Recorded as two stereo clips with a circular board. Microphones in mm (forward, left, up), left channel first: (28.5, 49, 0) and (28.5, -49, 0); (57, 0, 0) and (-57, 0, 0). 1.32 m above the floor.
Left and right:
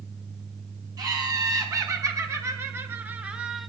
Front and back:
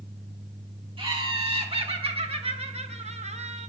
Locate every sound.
1.0 s laughter: 140° right, 2 m; by 3.7 s 175° left, 0.7 m